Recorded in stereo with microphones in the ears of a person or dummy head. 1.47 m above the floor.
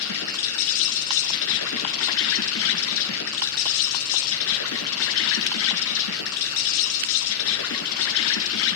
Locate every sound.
0.0 s an insect: 70° left (ahead or behind), 4 m